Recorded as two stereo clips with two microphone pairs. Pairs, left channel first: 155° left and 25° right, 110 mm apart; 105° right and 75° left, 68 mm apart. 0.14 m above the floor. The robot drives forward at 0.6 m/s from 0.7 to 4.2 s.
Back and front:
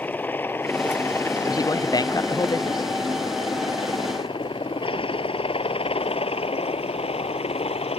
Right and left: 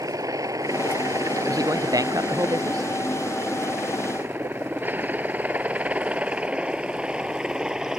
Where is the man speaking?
100° left.